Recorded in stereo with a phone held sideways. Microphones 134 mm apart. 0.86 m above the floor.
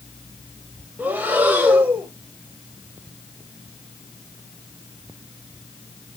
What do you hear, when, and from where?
1.0 s breathing: 10° right (ahead or behind), 2 m